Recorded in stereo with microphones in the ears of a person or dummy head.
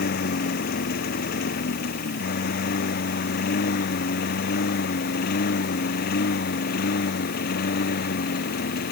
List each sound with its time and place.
0.0 s a lawn mower: 50° left (ahead or behind)